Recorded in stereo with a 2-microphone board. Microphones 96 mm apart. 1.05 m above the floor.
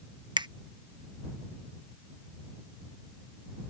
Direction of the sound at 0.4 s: 50° right (ahead or behind).